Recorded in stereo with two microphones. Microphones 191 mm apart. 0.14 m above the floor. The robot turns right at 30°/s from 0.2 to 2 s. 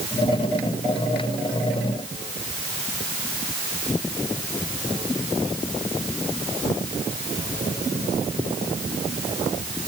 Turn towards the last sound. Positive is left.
No sound to turn to.